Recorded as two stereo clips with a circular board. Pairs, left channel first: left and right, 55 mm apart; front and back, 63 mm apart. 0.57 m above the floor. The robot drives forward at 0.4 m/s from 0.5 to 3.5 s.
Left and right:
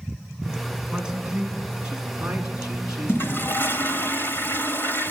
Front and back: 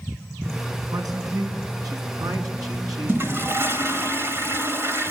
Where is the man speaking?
165° right, 5 m.